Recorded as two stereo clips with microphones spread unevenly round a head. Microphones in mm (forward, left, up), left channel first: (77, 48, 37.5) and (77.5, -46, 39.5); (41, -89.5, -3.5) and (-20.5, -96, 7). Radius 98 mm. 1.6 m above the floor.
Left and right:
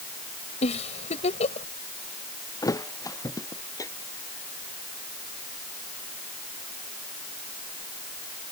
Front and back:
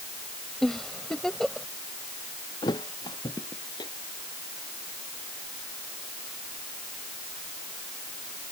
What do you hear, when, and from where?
0.6 s a giggle: 95° left
2.6 s a thud: 40° left